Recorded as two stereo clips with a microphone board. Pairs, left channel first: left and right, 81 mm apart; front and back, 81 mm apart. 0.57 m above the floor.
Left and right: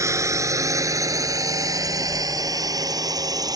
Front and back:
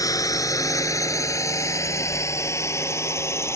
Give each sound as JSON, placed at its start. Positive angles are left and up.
{"t": 0.0, "sound": "a drone", "azimuth_deg": -40}